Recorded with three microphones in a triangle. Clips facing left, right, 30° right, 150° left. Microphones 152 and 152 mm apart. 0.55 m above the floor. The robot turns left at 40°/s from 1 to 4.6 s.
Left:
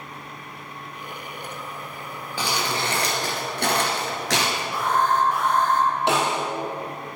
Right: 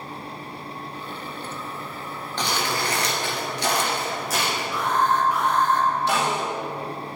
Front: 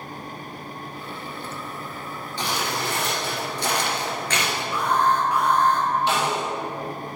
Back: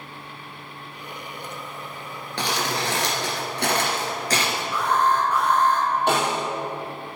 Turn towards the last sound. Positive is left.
turn(degrees=110)